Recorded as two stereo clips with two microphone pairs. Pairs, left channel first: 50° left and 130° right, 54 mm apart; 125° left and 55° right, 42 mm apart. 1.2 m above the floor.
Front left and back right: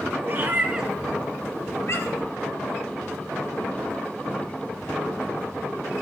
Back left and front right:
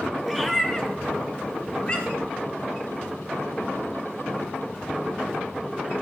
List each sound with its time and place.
0.2 s a cat meowing: 150° right, 1.5 m; by 2.3 s 60° left, 2.5 m